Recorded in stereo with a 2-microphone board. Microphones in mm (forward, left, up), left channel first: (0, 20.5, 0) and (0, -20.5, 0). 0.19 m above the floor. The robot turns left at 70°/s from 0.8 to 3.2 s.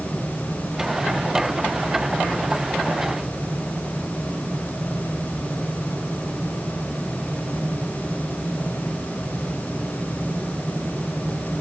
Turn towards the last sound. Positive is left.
No sound to turn to.